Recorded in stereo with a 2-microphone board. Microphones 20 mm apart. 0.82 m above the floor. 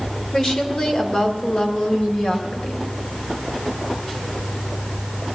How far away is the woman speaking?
About 2.5 m.